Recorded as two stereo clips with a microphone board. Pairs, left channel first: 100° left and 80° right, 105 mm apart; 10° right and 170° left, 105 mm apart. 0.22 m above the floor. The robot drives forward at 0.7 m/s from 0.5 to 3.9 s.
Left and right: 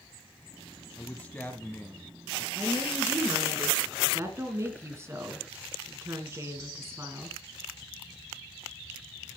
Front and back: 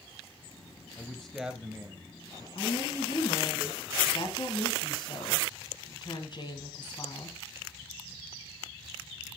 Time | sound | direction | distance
1.0 | a man speaking | 45° left | 1.0 m
2.5 | a woman speaking | 15° right | 3 m